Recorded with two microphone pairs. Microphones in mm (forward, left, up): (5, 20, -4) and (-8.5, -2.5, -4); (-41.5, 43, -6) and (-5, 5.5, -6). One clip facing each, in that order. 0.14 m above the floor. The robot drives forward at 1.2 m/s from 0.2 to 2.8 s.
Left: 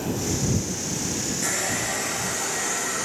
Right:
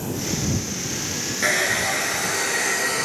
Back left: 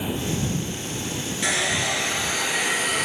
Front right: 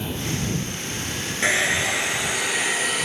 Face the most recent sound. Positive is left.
turn(degrees=-135)